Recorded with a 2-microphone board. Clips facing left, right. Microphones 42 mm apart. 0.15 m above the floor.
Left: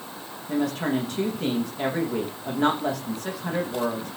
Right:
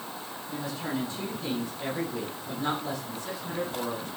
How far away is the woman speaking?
About 7 m.